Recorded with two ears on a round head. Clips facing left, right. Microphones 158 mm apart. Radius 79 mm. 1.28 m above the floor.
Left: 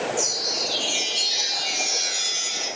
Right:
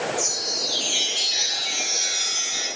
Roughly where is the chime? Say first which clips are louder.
Left 1 dB; left.